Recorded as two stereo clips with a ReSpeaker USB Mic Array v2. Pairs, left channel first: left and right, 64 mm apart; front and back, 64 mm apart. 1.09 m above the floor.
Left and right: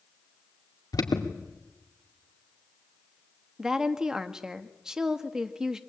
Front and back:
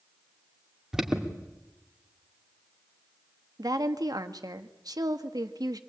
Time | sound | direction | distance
0.9 | an alarm | 100° left | 2.5 m
3.6 | a woman speaking | 170° right | 1.6 m